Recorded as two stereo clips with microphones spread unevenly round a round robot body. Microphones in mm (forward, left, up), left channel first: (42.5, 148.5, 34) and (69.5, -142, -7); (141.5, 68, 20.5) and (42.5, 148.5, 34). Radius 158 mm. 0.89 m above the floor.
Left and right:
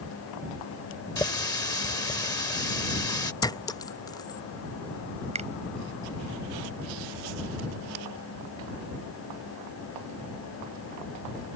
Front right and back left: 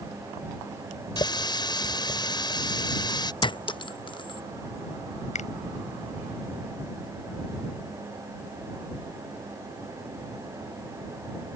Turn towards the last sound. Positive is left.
turn(degrees=-15)